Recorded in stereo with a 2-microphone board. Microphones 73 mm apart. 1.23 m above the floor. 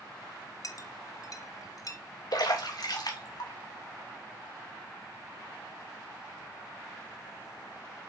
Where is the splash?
60° left (ahead or behind), 2.5 m.